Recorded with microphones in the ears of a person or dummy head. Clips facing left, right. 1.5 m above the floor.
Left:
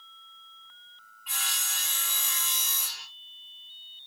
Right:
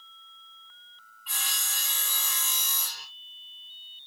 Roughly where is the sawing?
Centre.